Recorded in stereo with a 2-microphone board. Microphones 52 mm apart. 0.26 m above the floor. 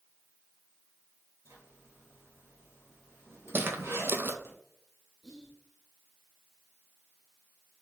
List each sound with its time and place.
1.4 s a zipper: 60° right (ahead or behind), 1.7 m
3.5 s footsteps: 45° right (ahead or behind), 0.5 m
5.2 s whispering: 5° right (ahead or behind), 1.2 m